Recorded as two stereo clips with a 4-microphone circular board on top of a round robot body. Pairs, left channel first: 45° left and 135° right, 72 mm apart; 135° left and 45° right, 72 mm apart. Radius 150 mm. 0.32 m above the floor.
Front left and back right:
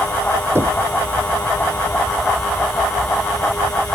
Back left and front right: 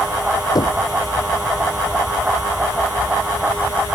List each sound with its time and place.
0.6 s knocking: 165° left